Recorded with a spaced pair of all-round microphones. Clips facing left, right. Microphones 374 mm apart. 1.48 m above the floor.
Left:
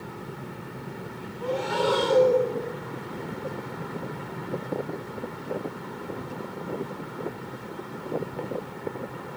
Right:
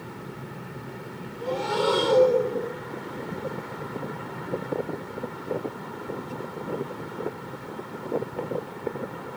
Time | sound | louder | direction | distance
1.4 | breathing | right 1 dB | 50° right (ahead or behind) | 2 m